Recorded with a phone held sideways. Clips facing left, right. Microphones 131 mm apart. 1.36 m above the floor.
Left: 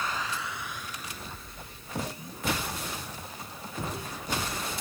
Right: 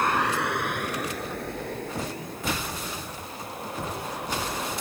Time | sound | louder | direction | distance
0.0 | a vehicle | right 9 dB | 70° right (ahead or behind) | ?